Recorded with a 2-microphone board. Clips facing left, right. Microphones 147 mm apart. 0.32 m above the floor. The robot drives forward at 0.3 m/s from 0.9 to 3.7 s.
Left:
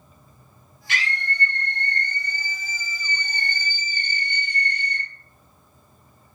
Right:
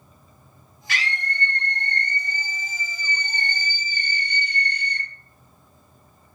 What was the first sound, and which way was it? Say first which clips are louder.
A scream: even; 20° left (ahead or behind).